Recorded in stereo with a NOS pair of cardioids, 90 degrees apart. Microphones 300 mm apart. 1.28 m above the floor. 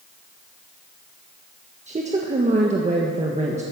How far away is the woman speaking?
About 1.7 m.